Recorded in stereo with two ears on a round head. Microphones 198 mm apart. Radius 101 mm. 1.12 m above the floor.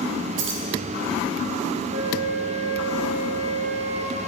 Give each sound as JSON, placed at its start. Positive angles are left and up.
{"t": 0.4, "sound": "keys jangling", "side_deg": -60, "distance_m": 1.4}
{"t": 1.9, "sound": "a flute", "side_deg": -45, "distance_m": 2.5}